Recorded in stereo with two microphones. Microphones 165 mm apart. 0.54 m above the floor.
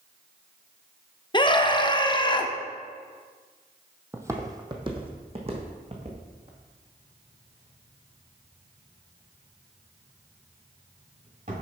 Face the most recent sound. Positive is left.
turn(degrees=-50)  # may be behind; listen again after turning